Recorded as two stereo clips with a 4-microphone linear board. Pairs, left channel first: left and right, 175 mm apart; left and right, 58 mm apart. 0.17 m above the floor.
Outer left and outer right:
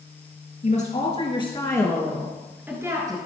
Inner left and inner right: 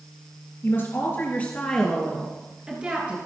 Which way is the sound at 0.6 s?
45° left (ahead or behind).